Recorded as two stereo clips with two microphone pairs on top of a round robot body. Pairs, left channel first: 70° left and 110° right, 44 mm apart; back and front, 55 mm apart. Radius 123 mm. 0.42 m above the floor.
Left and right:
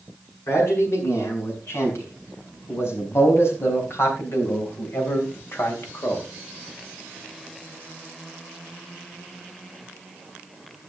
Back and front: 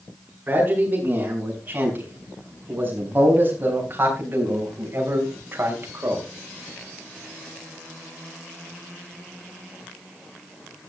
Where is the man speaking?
60° left, 6.5 m; by 6.2 s 40° left, 3 m.